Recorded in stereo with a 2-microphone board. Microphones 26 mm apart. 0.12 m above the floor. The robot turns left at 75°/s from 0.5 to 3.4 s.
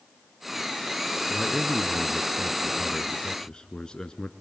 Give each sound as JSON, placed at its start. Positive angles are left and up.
{"t": 1.3, "sound": "a man speaking", "azimuth_deg": -125, "distance_m": 1.2}